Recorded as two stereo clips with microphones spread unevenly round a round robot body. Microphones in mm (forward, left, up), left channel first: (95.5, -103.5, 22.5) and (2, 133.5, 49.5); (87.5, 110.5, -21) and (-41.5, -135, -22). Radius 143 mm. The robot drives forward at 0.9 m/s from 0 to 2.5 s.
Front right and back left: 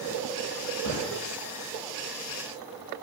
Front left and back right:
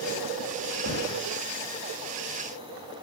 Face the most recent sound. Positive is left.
turn(degrees=-75)